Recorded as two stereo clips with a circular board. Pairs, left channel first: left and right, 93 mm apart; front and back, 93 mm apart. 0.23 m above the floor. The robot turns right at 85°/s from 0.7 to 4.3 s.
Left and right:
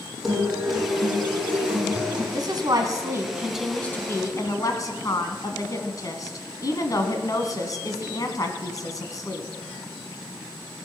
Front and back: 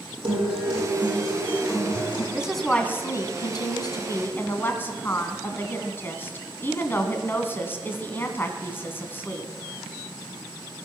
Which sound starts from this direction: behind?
A guitar, at 0.2 s.